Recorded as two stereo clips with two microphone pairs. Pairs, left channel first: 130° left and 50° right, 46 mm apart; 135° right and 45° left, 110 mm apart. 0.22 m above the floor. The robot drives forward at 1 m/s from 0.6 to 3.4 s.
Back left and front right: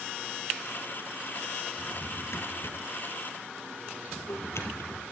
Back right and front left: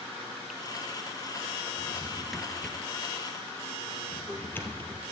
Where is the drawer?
115° left, 1.4 m; by 5.0 s 150° left, 2.5 m.